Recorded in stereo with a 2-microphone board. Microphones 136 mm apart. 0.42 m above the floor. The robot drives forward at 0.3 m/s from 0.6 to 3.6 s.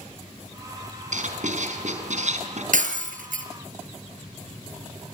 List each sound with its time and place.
1.1 s writing: 65° right (ahead or behind), 4 m; by 2.6 s 60° right (ahead or behind), 4 m
2.7 s breaking glass: 70° right (ahead or behind), 3.5 m; by 3.5 s 75° right (ahead or behind), 3 m